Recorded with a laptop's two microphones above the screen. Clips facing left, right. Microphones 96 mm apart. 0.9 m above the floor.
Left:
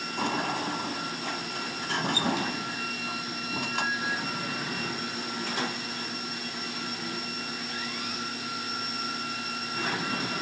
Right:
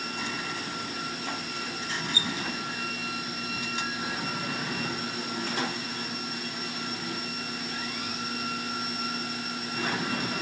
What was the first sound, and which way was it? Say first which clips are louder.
A sliding door: left 10 dB; 60° left (ahead or behind).